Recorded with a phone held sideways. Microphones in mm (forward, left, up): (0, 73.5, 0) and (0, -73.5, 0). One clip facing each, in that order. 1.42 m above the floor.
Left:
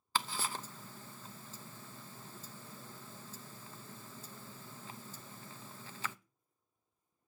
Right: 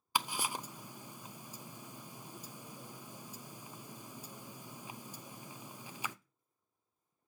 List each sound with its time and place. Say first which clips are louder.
0.1 s ticking: right 1 dB; 15° right (ahead or behind), 0.5 m